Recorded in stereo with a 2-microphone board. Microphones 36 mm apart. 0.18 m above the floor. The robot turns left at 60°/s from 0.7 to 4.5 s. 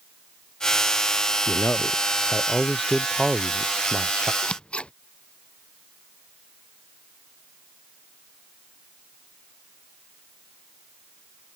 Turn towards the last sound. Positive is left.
turn(degrees=30)  # may be behind; listen again after turning